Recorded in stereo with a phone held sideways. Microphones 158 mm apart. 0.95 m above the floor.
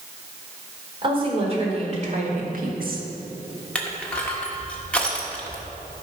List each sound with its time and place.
1.0 s a woman speaking: 35° right (ahead or behind), 3.5 m; by 3.1 s 65° right (ahead or behind), 1.6 m
3.8 s crushing: 5° left (ahead or behind), 1.5 m